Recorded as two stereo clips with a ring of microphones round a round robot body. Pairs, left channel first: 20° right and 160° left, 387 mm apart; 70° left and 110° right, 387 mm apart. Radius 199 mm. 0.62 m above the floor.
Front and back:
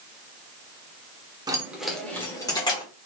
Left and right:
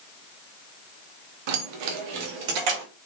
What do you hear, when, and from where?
1.5 s keys jangling: 125° right, 1.0 m; by 2.8 s 100° right, 1.9 m